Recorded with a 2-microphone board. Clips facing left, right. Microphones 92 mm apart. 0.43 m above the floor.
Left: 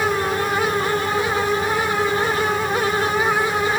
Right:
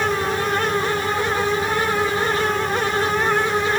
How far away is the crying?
No crying in this recording.